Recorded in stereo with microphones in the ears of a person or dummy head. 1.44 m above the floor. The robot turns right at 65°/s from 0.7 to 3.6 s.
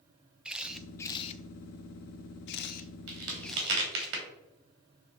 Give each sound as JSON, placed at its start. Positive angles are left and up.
{"t": 0.5, "sound": "a camera shutter", "side_deg": -5, "distance_m": 0.5}
{"t": 3.1, "sound": "a crack", "side_deg": -70, "distance_m": 3.0}